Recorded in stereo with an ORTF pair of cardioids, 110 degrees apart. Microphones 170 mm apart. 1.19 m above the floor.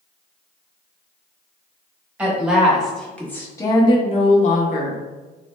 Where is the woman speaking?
10° right, 1.6 m; by 5.0 s 65° left, 1.0 m.